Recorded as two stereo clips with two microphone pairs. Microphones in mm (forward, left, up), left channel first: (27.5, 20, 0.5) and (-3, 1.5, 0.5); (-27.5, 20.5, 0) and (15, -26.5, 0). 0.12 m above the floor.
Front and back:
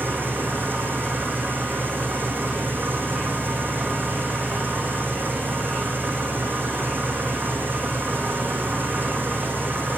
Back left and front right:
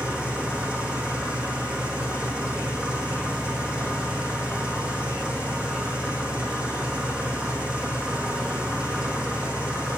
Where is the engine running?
120° right, 3 m.